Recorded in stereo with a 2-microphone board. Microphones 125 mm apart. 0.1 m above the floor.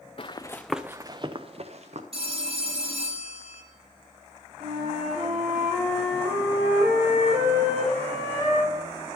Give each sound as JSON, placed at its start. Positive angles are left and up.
{"t": 0.2, "sound": "running footsteps", "side_deg": 45, "distance_m": 0.6}
{"t": 2.1, "sound": "a phone ringing", "side_deg": -50, "distance_m": 2.0}
{"t": 4.6, "sound": "a flute", "side_deg": -70, "distance_m": 5.0}